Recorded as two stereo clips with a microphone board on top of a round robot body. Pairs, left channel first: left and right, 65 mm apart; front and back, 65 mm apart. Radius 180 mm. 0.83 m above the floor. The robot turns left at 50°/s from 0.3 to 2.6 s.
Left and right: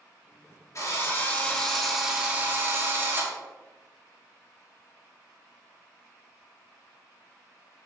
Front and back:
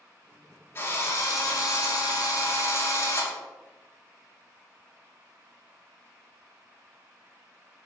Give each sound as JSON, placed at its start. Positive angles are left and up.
{"t": 0.8, "sound": "a drill", "azimuth_deg": 50, "distance_m": 5.5}